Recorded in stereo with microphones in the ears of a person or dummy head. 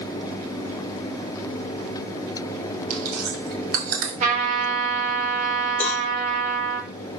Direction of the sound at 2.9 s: 50° right (ahead or behind).